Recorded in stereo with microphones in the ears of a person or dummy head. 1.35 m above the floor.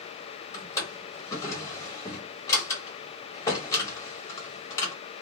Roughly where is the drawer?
Centre.